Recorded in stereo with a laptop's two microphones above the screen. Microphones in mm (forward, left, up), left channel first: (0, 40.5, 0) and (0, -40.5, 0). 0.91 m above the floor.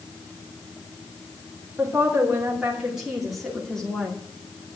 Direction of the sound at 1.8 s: 20° right (ahead or behind).